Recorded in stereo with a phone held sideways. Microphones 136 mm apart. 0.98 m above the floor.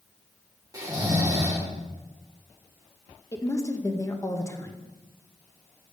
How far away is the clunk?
I don't hear a clunk.